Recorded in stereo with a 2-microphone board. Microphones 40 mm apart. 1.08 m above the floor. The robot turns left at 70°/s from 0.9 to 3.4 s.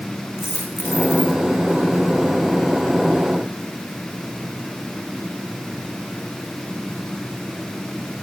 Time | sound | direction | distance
0.4 | a dropped coin | 95° left | 5.5 m